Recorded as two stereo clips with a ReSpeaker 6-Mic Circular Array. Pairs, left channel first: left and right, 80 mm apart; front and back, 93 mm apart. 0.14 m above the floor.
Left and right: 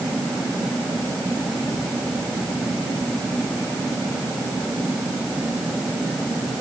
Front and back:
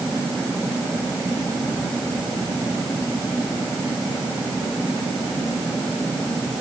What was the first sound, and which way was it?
Only background noise.